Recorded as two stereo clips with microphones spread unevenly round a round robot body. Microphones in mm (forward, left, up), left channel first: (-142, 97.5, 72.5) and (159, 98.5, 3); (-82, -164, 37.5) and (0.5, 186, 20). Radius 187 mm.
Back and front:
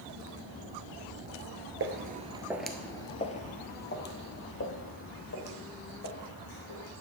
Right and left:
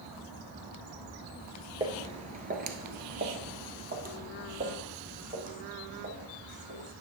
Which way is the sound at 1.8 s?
5° left.